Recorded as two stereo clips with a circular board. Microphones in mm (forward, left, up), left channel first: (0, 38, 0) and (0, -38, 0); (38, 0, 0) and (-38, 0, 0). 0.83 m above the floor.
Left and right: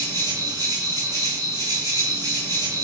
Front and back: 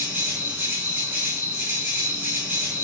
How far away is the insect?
About 5.5 m.